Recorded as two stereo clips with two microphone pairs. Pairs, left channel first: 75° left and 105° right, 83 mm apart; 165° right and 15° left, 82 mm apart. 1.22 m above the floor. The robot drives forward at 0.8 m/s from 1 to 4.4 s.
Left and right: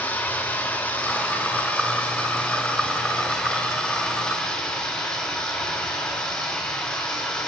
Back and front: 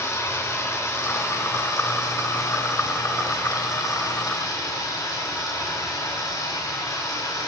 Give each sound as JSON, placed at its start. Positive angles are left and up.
{"t": 0.0, "sound": "running water", "azimuth_deg": 145, "distance_m": 5.0}